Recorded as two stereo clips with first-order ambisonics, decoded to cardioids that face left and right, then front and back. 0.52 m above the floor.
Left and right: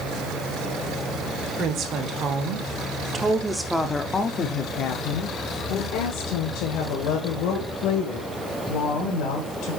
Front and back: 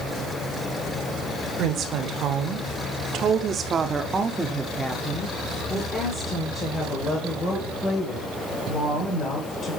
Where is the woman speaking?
130° right, 1.5 m; by 9.8 s 65° left, 3 m.